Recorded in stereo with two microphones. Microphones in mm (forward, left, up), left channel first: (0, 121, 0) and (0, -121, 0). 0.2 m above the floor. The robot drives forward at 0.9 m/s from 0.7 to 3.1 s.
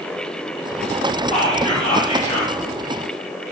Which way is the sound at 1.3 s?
25° left (ahead or behind).